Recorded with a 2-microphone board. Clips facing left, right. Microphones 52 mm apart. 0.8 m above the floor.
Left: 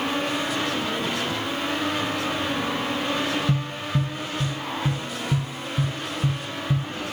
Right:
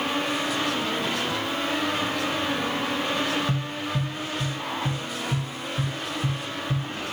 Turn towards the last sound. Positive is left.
turn(degrees=40)  # may be behind; listen again after turning